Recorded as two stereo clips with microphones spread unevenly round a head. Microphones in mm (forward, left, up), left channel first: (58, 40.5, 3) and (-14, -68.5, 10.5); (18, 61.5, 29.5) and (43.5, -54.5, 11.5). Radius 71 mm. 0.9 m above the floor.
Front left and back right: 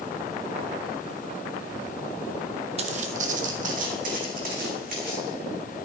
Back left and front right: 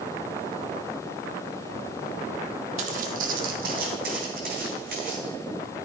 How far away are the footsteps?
About 1.3 m.